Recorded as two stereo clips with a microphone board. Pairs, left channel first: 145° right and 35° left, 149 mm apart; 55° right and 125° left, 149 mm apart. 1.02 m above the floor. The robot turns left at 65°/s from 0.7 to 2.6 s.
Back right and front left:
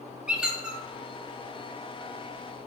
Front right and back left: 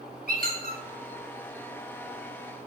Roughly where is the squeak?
Behind left.